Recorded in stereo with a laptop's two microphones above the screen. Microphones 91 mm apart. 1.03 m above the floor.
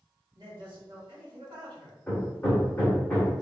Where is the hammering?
15° left (ahead or behind), 1.2 m.